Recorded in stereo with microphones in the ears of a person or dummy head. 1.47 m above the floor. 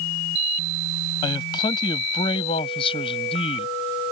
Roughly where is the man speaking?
Left.